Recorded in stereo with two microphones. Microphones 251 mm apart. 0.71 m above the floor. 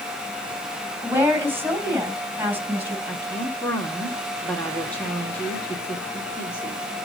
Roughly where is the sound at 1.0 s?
Centre.